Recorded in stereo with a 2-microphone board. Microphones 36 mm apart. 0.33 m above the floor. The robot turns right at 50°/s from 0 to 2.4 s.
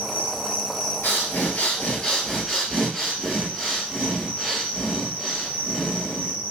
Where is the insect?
105° left, 1.9 m; by 6.5 s 135° right, 1.9 m.